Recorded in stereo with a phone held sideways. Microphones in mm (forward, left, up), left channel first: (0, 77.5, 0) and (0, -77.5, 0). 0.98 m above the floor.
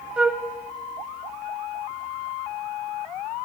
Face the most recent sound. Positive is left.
turn(degrees=-5)  # may be behind; listen again after turning